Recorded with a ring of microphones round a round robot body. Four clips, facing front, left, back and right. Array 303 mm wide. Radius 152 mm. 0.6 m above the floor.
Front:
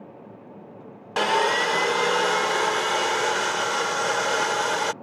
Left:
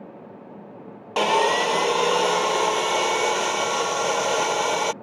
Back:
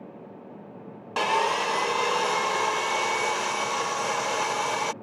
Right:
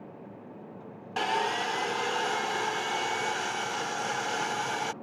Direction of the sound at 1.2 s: 65° left.